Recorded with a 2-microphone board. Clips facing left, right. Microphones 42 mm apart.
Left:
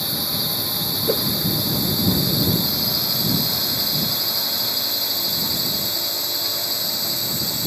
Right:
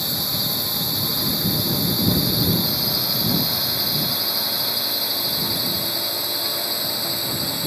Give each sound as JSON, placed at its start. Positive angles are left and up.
{"t": 0.0, "sound": "a drone", "side_deg": 0}
{"t": 1.1, "sound": "a whoosh", "side_deg": 85}